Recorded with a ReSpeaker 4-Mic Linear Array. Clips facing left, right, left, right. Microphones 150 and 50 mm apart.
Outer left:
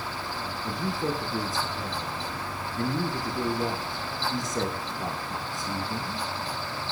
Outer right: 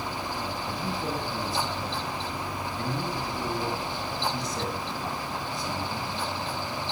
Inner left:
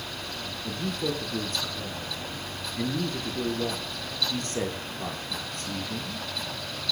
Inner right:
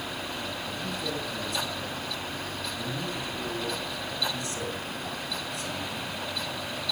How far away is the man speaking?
About 7.5 m.